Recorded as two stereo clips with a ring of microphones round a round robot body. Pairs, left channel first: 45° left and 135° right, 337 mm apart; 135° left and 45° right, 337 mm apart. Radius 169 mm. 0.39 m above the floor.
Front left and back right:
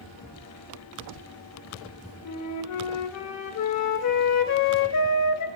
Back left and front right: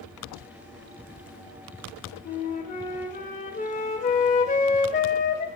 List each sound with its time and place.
2.2 s a flute: 70° left, 0.6 m